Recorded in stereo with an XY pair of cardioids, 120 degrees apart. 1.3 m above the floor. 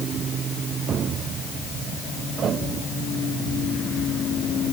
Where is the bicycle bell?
I don't hear a bicycle bell.